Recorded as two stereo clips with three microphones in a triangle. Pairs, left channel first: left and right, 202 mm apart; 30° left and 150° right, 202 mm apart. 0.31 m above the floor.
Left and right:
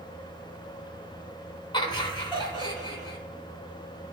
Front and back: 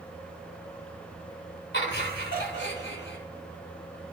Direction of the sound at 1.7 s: 25° left.